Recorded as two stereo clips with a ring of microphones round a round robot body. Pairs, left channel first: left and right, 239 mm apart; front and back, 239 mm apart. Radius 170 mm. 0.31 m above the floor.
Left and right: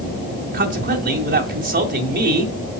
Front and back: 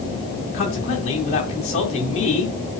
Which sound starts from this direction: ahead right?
A man speaking, at 0.5 s.